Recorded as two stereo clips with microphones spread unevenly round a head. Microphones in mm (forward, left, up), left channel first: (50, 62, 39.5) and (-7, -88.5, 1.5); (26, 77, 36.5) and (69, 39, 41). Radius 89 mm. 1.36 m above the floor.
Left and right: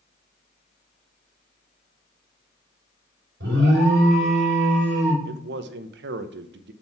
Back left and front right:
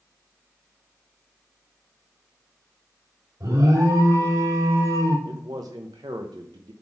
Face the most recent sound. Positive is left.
turn(degrees=-90)